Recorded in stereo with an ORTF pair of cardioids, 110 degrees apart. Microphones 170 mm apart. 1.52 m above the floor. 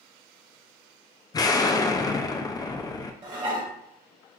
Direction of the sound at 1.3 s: 25° left.